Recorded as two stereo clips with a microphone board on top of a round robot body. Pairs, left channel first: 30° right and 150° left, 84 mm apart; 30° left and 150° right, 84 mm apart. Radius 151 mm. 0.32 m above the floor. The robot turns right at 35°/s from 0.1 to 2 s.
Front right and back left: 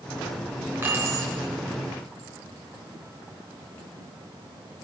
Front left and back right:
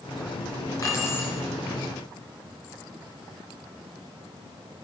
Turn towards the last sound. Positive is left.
turn(degrees=125)